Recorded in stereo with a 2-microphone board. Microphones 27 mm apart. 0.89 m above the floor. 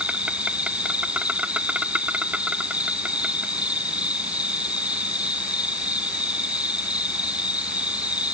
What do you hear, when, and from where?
0.0 s an insect: 45° right (ahead or behind)